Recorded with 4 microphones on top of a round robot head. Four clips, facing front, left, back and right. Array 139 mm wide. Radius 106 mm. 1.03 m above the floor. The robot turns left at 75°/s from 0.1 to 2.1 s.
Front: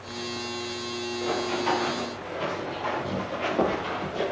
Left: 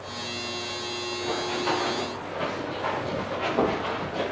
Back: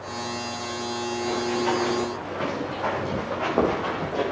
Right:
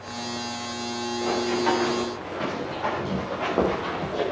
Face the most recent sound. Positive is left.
turn(degrees=-160)